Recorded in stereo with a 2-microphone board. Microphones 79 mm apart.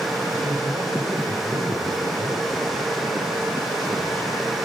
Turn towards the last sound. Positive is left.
turn(degrees=-80)